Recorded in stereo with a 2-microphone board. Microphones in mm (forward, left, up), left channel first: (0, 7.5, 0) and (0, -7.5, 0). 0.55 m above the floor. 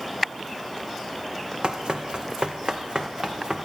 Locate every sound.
1.6 s running footsteps: 70° right (ahead or behind), 1.8 m; by 3.7 s 80° right, 3 m